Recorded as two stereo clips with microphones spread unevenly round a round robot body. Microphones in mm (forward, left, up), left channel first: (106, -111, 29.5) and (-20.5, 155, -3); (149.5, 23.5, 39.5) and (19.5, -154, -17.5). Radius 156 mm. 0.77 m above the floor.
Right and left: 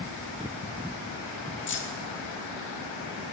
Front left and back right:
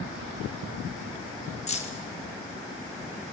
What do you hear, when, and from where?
1.7 s keys jangling: 15° right, 0.9 m